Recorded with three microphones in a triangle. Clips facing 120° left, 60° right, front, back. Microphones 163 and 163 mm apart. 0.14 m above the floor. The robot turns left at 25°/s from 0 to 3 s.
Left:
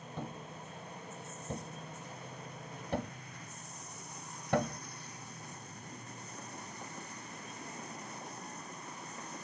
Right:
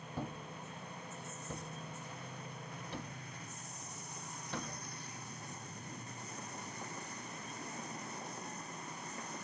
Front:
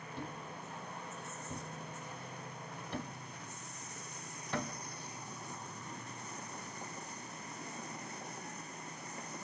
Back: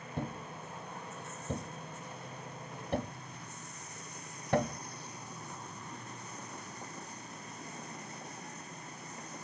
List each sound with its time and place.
0.2 s a thud: 140° right, 0.9 m; by 4.8 s 150° left, 0.9 m